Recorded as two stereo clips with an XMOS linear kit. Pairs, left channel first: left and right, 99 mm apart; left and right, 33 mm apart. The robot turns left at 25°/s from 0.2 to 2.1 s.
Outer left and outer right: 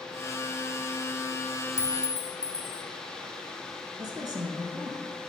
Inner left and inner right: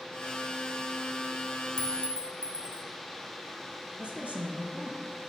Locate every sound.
1.8 s a clink: 30° left (ahead or behind), 0.7 m
4.0 s a woman speaking: 45° right (ahead or behind), 2 m